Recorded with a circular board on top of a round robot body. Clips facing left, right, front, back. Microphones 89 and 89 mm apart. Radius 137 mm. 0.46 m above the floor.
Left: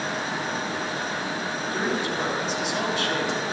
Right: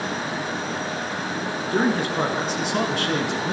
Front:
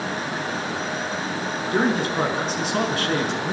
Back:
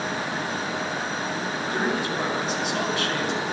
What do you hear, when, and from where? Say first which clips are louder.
1.7 s a man speaking: right 6 dB, front 6 dB; 50° right, 6 m